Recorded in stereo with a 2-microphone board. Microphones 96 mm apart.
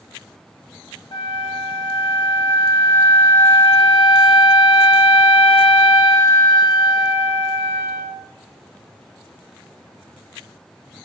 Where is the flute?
55° left (ahead or behind), 0.7 m.